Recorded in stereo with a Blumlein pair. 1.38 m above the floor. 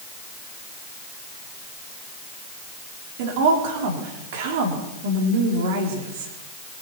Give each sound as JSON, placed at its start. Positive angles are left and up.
{"t": 3.2, "sound": "a woman speaking", "azimuth_deg": -50, "distance_m": 4.0}